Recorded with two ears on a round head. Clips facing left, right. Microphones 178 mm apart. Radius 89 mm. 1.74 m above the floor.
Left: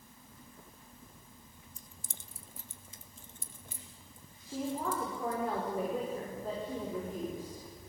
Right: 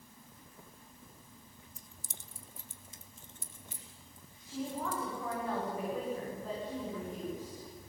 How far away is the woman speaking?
About 6.5 m.